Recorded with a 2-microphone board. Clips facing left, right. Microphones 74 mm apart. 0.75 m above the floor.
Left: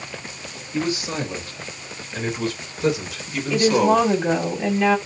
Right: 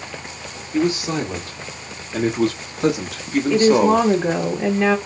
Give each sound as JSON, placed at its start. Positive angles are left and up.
{"t": 0.7, "sound": "a man speaking", "side_deg": -55, "distance_m": 1.9}
{"t": 3.5, "sound": "a woman speaking", "side_deg": -20, "distance_m": 0.9}